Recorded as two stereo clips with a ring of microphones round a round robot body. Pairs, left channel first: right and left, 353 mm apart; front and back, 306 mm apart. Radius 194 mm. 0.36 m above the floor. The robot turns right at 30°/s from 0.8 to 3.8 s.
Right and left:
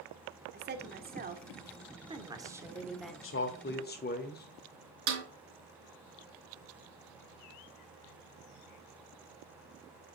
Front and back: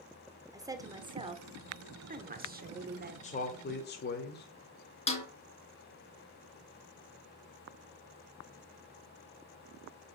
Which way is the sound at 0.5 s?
110° left.